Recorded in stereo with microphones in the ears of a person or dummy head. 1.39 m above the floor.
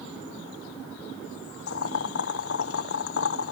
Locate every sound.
1.7 s boiling: 70° left (ahead or behind), 1.1 m